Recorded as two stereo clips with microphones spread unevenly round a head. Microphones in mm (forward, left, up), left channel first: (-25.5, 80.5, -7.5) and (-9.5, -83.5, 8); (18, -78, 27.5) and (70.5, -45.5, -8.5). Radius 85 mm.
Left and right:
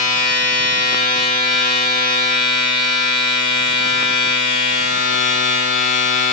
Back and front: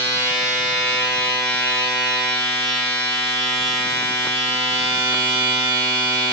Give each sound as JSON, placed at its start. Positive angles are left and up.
{"t": 0.0, "sound": "a machine running", "azimuth_deg": 130, "distance_m": 3.5}